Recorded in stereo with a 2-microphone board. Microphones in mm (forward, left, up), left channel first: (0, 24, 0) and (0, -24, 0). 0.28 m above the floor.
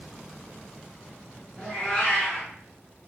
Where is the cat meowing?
20° left (ahead or behind), 1.4 m.